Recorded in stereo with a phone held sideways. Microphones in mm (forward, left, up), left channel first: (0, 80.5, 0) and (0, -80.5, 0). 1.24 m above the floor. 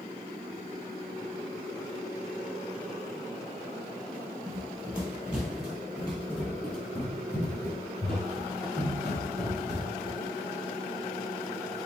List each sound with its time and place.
4.5 s running footsteps: 15° right (ahead or behind), 1.4 m; by 10.2 s 25° left (ahead or behind), 3.5 m